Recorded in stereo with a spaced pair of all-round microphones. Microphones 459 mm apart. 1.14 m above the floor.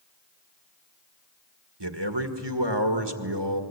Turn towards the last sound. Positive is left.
turn(degrees=-65)  # may be behind; listen again after turning